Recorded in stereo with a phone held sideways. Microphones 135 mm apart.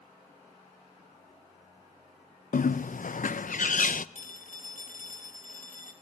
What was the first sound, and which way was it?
A bird, 75° left (ahead or behind).